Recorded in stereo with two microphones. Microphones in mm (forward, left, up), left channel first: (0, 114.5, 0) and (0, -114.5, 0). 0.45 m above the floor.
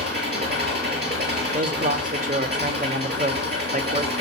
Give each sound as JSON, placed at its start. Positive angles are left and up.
{"t": 0.0, "sound": "an engine running", "side_deg": -45, "distance_m": 7.0}
{"t": 1.5, "sound": "a man speaking", "side_deg": -35, "distance_m": 1.0}